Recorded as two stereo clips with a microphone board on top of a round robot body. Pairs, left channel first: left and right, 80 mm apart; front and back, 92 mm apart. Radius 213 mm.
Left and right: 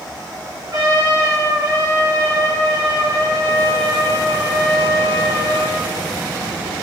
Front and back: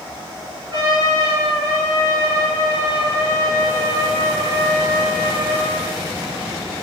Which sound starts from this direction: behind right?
A trumpet, at 0.7 s.